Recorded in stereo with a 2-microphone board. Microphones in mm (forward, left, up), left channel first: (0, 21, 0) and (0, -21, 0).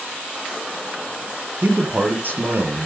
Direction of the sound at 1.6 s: 50° right (ahead or behind).